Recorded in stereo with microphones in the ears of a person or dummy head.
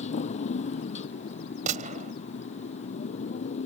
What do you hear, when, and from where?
0.0 s a motorcycle: 45° left (ahead or behind)
1.7 s a gunshot: 45° right (ahead or behind)